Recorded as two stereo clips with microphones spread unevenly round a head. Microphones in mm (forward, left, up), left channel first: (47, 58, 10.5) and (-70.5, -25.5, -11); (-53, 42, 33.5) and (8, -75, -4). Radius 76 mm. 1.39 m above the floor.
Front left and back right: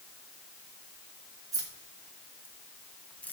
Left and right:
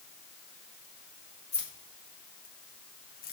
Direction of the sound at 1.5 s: 145° left.